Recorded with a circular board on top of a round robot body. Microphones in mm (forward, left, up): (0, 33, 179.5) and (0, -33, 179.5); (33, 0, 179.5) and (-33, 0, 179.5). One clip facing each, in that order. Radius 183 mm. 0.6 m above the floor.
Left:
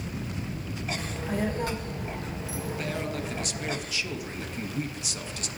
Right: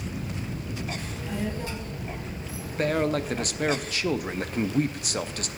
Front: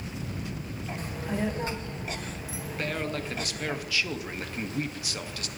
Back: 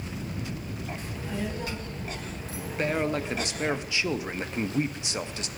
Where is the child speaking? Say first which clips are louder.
Left 2 dB, front 5 dB; 40° left, 2.0 m; by 3.8 s 120° left, 2 m.